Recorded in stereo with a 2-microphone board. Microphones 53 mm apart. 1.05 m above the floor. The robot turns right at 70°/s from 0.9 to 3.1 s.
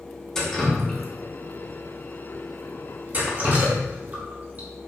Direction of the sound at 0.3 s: 10° left (ahead or behind).